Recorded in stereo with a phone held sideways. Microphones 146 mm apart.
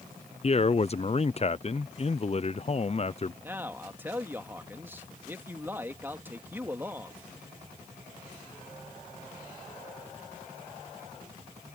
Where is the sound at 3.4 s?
15° right (ahead or behind).